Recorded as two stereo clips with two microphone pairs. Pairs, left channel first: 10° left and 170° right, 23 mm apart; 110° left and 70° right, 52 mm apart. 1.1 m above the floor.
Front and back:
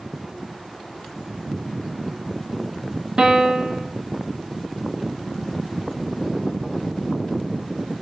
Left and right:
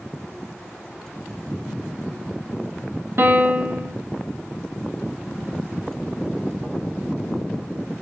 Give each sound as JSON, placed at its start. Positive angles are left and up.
{"t": 3.2, "sound": "a piano", "azimuth_deg": -115, "distance_m": 1.0}